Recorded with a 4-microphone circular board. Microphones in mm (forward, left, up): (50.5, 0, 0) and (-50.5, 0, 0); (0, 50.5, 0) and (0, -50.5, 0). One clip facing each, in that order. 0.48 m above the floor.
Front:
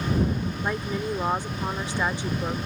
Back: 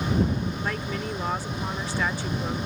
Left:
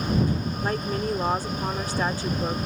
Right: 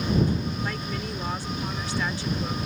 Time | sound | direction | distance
0.6 | a woman speaking | 65° left | ?